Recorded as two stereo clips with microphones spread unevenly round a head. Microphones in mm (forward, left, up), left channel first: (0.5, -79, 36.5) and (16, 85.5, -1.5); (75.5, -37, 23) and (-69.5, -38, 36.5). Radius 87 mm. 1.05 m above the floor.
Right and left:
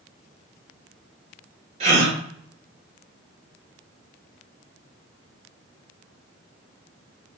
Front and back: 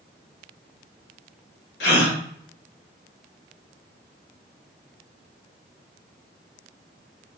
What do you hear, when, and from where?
1.8 s a gasp: 25° left, 1.1 m